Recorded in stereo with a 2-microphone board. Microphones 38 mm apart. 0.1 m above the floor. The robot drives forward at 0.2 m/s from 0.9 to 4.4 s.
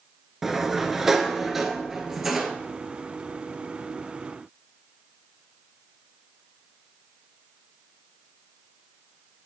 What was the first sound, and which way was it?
A sliding door, 10° right (ahead or behind).